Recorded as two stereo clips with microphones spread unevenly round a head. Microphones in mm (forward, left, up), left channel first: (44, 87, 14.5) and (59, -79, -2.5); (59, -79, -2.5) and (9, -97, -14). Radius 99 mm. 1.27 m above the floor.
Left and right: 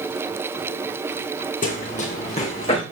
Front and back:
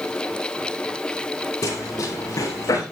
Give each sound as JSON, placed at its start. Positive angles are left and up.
{"t": 1.6, "sound": "running footsteps", "azimuth_deg": 55, "distance_m": 7.0}